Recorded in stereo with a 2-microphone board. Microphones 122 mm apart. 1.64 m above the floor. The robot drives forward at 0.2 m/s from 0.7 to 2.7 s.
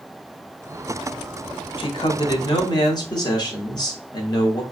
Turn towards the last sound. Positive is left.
turn(degrees=35)  # may be behind; listen again after turning